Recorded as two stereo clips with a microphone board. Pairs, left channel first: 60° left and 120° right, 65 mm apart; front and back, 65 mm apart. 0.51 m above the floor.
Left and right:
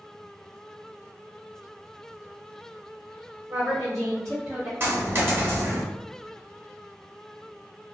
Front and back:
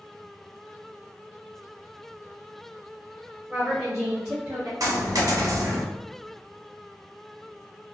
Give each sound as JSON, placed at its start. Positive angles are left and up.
{"t": 3.5, "sound": "a woman speaking", "azimuth_deg": -110, "distance_m": 1.5}
{"t": 4.8, "sound": "a dropped coin", "azimuth_deg": -170, "distance_m": 0.9}